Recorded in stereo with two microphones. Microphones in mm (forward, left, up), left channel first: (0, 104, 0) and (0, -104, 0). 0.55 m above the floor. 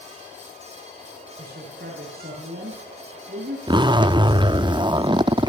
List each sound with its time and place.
1.4 s a man speaking: 50° right (ahead or behind), 7 m
3.7 s a zipper: 20° right (ahead or behind), 0.6 m